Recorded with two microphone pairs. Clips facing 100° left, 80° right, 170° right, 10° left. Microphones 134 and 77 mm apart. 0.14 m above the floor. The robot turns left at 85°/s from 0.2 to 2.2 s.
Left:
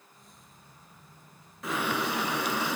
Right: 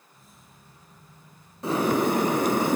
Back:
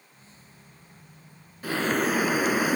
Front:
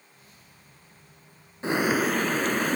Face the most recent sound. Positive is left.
turn(degrees=-90)